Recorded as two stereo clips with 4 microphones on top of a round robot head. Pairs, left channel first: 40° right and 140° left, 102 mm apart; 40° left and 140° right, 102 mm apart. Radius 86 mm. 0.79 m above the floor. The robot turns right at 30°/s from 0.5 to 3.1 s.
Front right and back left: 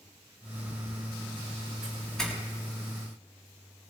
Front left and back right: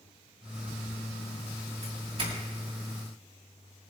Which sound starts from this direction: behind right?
A doorbell, at 1.8 s.